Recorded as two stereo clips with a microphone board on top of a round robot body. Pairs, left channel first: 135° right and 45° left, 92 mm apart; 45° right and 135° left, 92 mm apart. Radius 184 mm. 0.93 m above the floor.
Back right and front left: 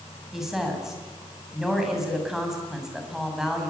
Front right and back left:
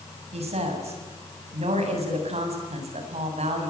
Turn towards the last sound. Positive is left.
turn(degrees=130)